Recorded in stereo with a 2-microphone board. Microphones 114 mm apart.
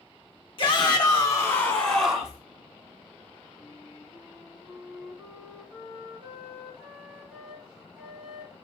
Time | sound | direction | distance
0.6 | a shout | 45° left (ahead or behind) | 0.9 m
3.6 | a flute | 10° right (ahead or behind) | 1.1 m